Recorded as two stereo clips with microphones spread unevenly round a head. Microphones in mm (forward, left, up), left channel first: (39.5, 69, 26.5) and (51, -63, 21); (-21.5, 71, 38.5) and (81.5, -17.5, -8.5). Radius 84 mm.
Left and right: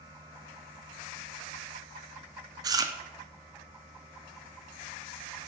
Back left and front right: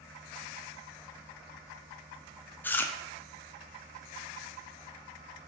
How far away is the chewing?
About 0.5 m.